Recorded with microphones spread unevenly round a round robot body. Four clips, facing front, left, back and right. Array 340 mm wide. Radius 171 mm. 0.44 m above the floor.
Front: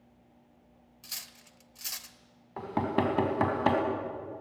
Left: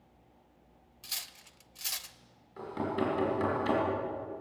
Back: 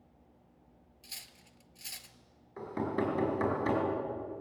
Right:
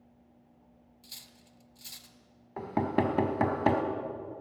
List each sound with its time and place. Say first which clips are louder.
1.0 s cutlery clinking: left 9 dB, front 5 dB; 55° left, 1.0 m
2.6 s knocking: right 4 dB, front 4 dB; 50° right, 2.5 m